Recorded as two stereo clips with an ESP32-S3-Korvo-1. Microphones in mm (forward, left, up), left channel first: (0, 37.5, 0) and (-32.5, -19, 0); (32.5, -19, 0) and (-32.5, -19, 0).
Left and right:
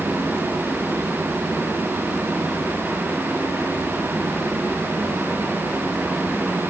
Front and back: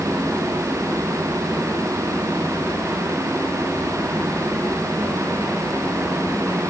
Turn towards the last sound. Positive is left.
No sound to turn to.